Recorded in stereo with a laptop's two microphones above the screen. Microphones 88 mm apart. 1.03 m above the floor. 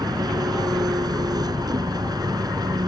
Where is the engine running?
50° right (ahead or behind).